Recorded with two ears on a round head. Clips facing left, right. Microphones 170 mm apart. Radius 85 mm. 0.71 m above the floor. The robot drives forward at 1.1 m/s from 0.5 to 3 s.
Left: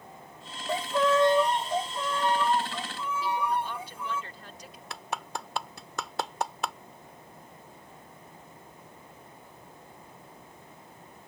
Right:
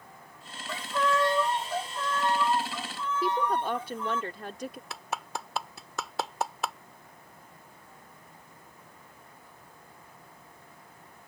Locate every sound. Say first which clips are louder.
0.7 s a violin: left 4 dB; 30° left (ahead or behind); by 4.2 s 10° left (ahead or behind)
3.2 s a woman speaking: right 2 dB; 45° right (ahead or behind)
4.9 s a clap: even; centre (ahead or behind)